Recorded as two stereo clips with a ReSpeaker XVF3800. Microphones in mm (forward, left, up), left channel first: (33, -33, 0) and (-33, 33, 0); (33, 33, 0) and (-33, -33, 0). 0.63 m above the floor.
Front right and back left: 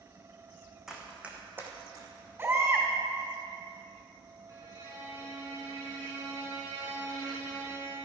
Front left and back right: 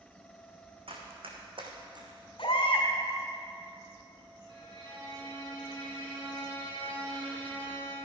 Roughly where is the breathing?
No breathing in this recording.